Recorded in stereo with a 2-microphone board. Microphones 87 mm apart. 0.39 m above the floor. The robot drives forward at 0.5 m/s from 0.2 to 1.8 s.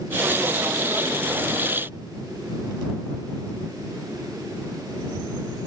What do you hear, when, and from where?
Only background noise.